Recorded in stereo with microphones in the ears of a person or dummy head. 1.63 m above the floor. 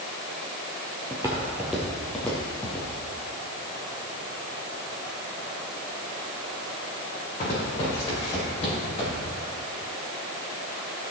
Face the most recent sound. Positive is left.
turn(degrees=35)  # may be behind; listen again after turning